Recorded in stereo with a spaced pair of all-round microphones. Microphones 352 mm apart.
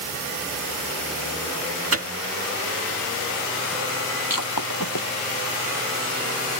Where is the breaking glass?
65° left (ahead or behind).